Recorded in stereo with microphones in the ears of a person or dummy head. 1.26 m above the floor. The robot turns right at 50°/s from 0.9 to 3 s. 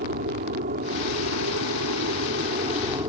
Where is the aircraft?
130° right; by 3.1 s 25° right.